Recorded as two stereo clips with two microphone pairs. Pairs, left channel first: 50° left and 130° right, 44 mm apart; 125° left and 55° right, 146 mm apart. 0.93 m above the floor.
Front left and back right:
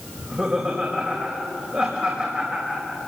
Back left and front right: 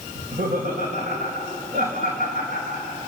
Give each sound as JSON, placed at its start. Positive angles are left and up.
{"t": 0.1, "sound": "laughter", "azimuth_deg": -65, "distance_m": 4.5}